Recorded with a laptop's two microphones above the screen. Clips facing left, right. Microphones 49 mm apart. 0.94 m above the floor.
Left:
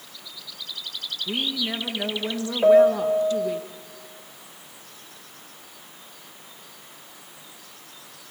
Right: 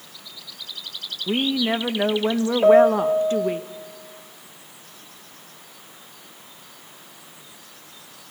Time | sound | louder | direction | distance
1.3 | a woman speaking | right 7 dB | 35° right (ahead or behind) | 0.6 m
2.6 | a piano | right 1 dB | 5° right (ahead or behind) | 1.7 m